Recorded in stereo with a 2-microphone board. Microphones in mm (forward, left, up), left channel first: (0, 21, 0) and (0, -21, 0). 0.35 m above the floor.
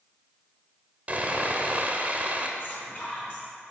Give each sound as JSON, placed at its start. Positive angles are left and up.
{"t": 1.1, "sound": "sawing", "side_deg": -35, "distance_m": 0.6}
{"t": 2.6, "sound": "whispering", "side_deg": 35, "distance_m": 2.0}